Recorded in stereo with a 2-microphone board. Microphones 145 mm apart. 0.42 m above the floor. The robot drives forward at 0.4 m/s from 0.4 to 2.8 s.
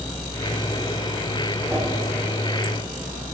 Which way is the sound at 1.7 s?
15° right (ahead or behind).